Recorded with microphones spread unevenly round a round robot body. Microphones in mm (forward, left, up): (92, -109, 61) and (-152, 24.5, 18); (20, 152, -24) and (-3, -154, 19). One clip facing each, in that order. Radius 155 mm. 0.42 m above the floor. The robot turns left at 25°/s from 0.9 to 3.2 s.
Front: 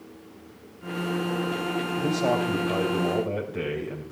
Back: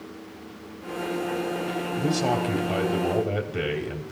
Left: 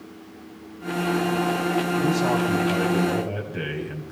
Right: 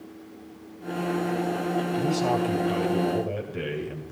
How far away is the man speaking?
About 2.5 m.